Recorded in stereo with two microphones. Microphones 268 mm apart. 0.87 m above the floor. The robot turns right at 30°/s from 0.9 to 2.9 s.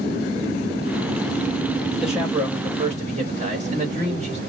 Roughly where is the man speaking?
Centre.